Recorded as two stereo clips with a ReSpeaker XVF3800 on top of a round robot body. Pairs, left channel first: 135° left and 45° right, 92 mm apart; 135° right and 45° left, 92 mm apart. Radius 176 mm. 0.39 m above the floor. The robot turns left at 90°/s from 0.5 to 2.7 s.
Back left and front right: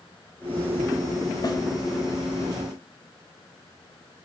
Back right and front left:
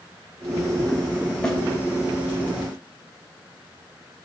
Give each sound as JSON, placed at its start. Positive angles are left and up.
{"t": 1.4, "sound": "a snare drum", "azimuth_deg": 150, "distance_m": 0.7}